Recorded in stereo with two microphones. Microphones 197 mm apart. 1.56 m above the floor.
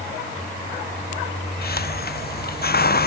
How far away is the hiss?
About 0.7 m.